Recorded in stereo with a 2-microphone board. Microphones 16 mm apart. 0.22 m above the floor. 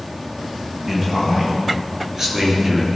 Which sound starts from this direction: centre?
A man speaking, at 0.9 s.